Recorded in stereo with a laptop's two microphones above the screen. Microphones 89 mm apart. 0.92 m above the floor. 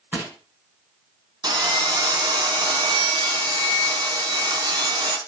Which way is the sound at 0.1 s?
20° right (ahead or behind).